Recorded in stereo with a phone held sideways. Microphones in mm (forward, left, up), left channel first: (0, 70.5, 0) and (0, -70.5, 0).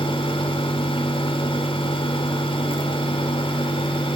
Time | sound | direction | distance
0.0 | a fan | 40° left (ahead or behind) | 1.5 m